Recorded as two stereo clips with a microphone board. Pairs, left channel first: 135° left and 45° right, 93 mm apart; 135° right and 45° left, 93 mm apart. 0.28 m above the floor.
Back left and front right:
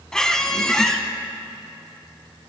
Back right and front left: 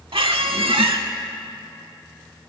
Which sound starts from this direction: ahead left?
A squeak, at 0.1 s.